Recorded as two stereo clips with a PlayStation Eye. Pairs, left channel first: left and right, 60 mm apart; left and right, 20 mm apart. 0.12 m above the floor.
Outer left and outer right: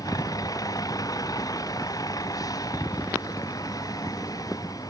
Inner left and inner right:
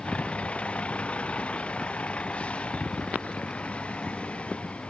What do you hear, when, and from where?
0.0 s a vehicle: 85° left